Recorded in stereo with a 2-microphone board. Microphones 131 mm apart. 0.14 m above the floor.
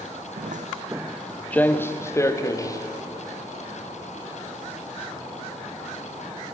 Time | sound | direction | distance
0.4 | footsteps | 80° right | 0.6 m